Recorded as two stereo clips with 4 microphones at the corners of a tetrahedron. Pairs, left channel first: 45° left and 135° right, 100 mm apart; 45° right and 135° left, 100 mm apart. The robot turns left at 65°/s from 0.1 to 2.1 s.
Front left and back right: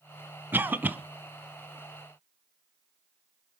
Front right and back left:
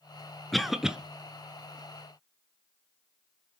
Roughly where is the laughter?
No laughter in this recording.